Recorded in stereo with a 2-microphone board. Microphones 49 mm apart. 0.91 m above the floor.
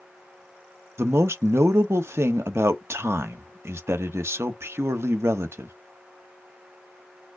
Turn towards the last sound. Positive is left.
turn(degrees=-60)  # may be behind; listen again after turning